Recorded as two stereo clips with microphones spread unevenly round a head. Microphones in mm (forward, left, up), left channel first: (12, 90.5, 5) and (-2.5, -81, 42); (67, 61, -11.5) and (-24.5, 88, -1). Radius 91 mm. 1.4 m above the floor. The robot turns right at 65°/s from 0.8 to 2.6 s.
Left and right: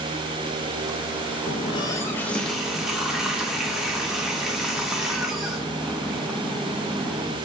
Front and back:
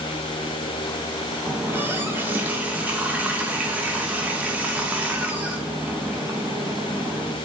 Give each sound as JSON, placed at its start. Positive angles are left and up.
{"t": 1.5, "sound": "a running tap", "azimuth_deg": 130, "distance_m": 0.6}